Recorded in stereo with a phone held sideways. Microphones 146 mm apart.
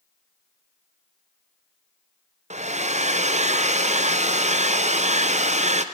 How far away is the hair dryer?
About 0.6 m.